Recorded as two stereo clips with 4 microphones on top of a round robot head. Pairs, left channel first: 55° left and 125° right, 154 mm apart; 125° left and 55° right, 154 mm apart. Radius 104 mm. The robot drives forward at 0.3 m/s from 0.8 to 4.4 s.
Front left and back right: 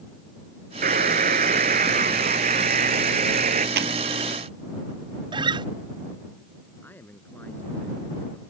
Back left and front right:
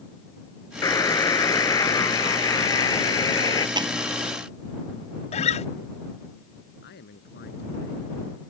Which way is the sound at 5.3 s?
175° left.